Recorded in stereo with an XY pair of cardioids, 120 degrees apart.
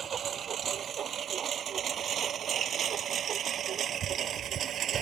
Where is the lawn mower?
45° right; by 5.0 s 55° right.